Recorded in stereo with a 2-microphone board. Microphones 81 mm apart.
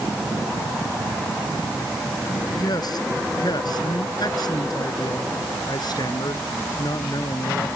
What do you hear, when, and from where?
2.3 s a man speaking: 55° left (ahead or behind); by 7.7 s 60° left (ahead or behind)